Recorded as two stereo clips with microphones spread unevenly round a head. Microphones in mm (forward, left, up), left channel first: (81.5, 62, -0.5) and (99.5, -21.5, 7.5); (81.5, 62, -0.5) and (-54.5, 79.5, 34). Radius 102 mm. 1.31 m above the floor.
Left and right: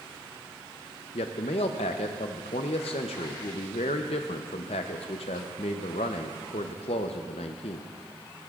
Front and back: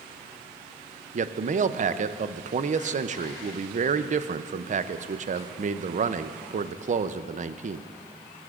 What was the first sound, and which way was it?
A man speaking, 140° left.